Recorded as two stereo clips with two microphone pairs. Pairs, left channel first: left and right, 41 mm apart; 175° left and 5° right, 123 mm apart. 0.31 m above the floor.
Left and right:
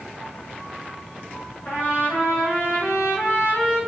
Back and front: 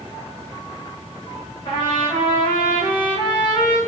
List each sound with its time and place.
1.6 s a trumpet: 125° left, 3.5 m